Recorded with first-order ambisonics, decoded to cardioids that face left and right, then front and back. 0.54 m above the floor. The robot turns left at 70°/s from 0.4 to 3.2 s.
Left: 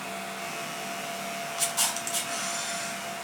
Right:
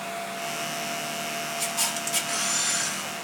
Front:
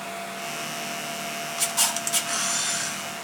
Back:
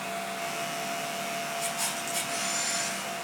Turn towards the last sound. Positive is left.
turn(degrees=-85)